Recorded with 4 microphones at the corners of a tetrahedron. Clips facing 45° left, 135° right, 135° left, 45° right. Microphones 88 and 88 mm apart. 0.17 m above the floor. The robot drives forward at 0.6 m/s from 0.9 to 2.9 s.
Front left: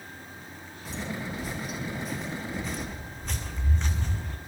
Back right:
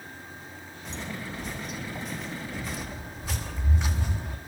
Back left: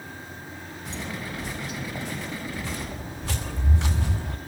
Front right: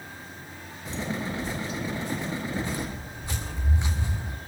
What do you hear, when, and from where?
0.8 s footsteps: 130° left, 6.5 m; by 4.4 s 150° left, 2.5 m